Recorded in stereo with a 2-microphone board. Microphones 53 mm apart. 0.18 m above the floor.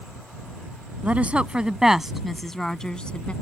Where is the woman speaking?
30° right (ahead or behind); by 3.3 s 25° left (ahead or behind).